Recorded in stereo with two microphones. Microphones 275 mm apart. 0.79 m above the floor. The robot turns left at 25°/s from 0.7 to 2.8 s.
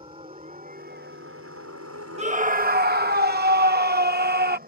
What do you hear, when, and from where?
0.0 s a helicopter: 20° right (ahead or behind); by 4.7 s 30° right (ahead or behind)
2.2 s a scream: 25° right (ahead or behind); by 4.6 s 35° right (ahead or behind)